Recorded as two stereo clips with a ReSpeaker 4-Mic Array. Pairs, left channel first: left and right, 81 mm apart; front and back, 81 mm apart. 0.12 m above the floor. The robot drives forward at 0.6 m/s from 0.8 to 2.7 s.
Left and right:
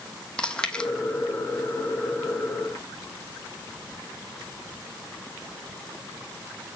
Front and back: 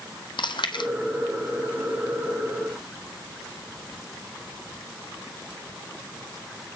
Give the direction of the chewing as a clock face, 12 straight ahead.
12 o'clock.